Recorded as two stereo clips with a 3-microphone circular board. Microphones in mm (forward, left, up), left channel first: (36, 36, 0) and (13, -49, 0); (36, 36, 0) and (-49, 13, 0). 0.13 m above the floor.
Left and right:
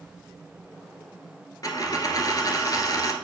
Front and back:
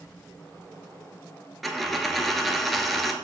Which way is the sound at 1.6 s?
105° left.